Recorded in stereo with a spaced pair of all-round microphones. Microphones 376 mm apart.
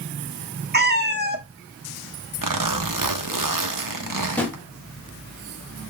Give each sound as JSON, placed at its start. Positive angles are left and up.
{"t": 0.7, "sound": "a cat meowing", "side_deg": -25, "distance_m": 0.6}
{"t": 2.4, "sound": "a zipper", "side_deg": -60, "distance_m": 0.7}
{"t": 3.9, "sound": "a drawer", "side_deg": 5, "distance_m": 1.2}